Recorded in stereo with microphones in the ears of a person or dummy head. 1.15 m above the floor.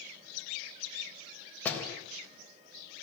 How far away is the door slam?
About 3.5 m.